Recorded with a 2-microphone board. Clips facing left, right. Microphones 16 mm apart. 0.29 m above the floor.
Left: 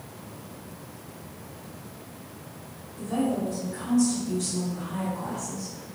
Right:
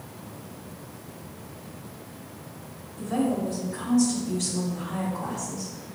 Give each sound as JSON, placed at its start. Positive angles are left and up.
{"t": 3.0, "sound": "a woman speaking", "side_deg": -5, "distance_m": 2.5}